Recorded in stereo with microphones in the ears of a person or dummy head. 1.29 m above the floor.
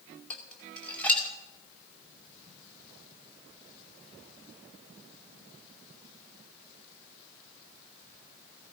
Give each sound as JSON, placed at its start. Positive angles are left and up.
{"t": 0.3, "sound": "dishes clattering", "side_deg": 10, "distance_m": 2.5}